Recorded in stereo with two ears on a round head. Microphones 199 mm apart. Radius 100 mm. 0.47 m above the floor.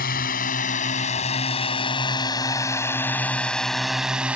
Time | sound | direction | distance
0.0 | a drone | 40° left (ahead or behind) | ?